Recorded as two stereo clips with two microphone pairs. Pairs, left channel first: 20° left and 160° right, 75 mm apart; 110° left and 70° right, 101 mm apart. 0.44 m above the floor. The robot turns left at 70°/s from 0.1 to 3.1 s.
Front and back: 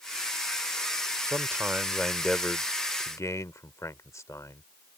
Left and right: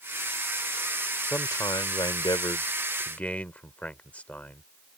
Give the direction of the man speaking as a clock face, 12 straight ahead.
6 o'clock.